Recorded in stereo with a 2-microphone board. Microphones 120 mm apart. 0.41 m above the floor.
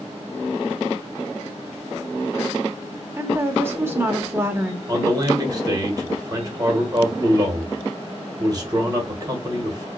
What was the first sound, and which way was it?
A woman speaking, 20° right (ahead or behind).